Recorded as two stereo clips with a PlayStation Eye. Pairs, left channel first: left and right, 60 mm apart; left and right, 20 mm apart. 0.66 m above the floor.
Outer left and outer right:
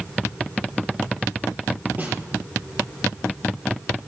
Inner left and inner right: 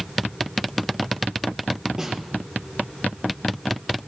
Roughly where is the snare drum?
Right.